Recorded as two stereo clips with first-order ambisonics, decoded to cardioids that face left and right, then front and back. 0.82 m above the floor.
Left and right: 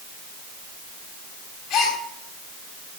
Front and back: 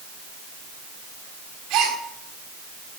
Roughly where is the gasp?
Behind left.